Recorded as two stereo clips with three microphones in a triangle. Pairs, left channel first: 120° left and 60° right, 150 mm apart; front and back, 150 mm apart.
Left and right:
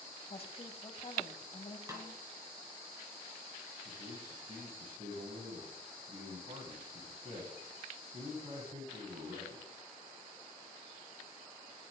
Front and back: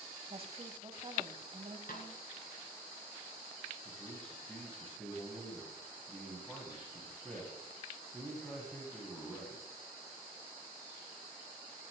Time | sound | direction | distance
0.3 | a woman speaking | 150° left | 1.3 m
1.9 | a snare drum | 10° left | 2 m
3.9 | a man speaking | 80° right | 2.5 m